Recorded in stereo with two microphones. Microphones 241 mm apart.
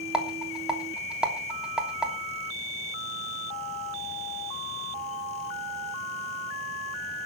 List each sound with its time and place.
0.1 s a rattle: 5° right (ahead or behind), 3 m